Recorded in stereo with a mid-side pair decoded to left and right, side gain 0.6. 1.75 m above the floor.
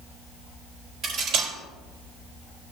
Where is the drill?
I don't hear a drill.